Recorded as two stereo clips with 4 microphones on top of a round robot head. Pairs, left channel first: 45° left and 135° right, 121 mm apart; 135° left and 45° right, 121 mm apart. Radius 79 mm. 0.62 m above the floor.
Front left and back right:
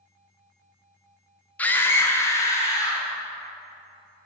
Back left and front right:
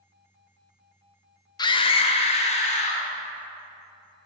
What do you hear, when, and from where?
1.6 s a scream: 115° left, 0.7 m; by 3.1 s 110° left, 1.9 m